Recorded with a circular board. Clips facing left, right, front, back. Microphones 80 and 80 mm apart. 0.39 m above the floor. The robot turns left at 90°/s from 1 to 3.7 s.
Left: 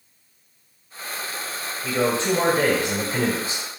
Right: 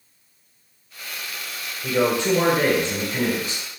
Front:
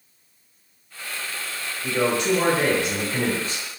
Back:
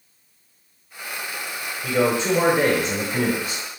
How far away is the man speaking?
About 1.4 m.